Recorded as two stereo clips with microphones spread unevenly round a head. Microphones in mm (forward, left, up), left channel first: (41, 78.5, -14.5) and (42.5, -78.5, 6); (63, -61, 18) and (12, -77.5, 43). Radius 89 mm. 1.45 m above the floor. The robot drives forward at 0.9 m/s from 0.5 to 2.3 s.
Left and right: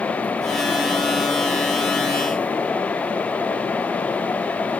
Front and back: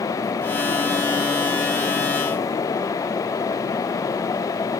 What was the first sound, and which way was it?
Only background noise.